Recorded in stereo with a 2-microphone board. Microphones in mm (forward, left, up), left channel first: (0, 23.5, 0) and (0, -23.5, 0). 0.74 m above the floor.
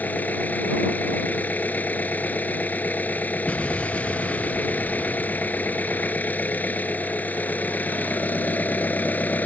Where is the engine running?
35° left (ahead or behind).